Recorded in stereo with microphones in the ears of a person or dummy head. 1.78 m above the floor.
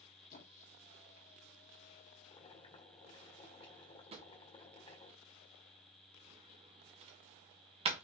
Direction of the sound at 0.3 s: 35° left (ahead or behind).